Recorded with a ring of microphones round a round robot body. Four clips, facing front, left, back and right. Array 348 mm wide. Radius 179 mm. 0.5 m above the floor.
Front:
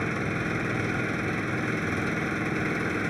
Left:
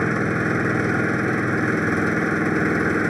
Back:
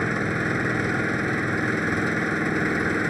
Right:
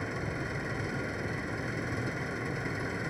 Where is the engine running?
100° left.